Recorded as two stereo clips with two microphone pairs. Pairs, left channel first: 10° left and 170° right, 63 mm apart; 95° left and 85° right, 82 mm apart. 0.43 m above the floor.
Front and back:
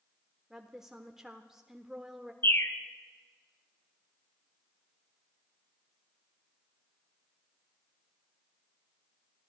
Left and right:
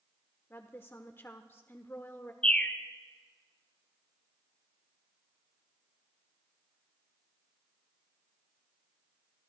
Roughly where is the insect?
I don't hear an insect.